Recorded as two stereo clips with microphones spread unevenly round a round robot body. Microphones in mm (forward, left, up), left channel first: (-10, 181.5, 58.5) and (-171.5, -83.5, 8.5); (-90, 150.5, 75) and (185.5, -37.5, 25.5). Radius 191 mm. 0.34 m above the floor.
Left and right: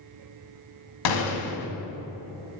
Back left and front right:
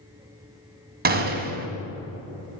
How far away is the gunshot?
About 1.0 m.